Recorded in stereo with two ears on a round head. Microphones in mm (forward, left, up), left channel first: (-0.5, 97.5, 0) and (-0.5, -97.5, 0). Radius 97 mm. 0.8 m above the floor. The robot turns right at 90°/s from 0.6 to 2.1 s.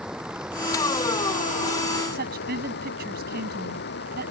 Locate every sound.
0.0 s running water: 5° right; by 4.3 s 130° left
2.1 s a woman speaking: 45° right (ahead or behind)